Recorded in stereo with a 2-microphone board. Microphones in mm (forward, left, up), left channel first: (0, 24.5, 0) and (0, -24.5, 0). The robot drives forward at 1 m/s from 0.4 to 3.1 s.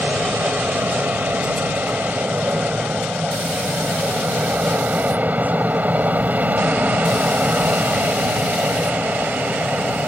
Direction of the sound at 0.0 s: 40° right (ahead or behind).